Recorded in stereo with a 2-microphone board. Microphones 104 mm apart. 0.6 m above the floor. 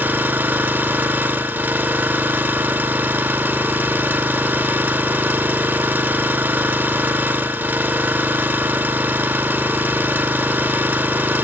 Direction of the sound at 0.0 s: 15° right (ahead or behind).